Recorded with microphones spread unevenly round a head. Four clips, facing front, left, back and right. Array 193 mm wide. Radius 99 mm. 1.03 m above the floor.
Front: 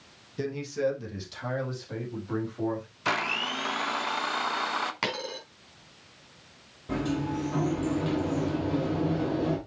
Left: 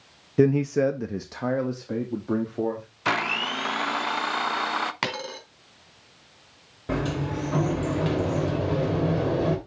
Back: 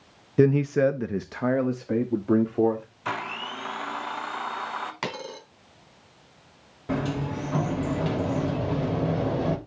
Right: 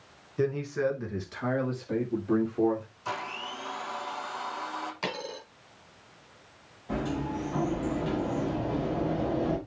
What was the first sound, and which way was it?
A man speaking, 130° left.